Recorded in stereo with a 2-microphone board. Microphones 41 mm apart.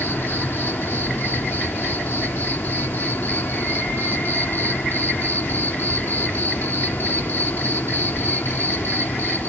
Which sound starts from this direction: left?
An insect, at 0.0 s.